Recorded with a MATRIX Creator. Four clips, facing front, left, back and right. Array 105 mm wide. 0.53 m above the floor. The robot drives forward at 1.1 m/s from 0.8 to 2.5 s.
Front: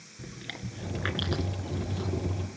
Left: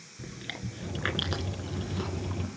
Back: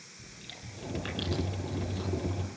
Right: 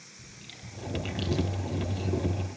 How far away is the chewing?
About 2.5 m.